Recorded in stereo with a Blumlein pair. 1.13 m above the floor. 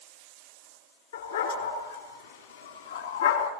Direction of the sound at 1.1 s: 65° left.